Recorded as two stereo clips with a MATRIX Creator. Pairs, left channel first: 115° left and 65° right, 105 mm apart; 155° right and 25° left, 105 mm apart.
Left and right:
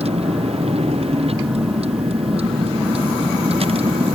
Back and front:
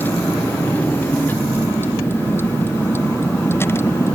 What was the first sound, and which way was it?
A vehicle, 85° right.